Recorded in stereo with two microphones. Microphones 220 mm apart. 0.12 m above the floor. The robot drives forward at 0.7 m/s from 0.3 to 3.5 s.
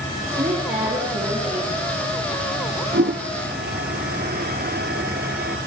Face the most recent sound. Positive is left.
turn(degrees=-50)  # may be behind; listen again after turning